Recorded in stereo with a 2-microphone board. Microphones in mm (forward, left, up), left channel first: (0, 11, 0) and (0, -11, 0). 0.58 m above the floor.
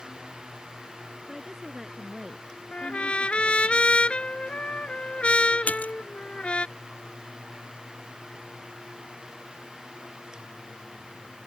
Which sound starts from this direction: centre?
A woman speaking, at 1.3 s.